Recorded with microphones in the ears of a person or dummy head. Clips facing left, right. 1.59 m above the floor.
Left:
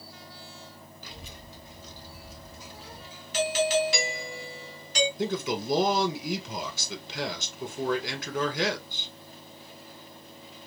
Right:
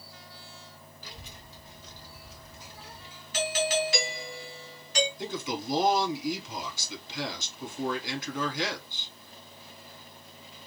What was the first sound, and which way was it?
A child speaking, 70° left (ahead or behind).